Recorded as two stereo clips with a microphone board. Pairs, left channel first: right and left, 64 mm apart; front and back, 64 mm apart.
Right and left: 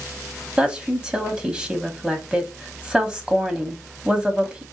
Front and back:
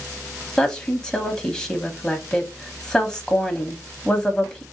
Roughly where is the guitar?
No guitar in this recording.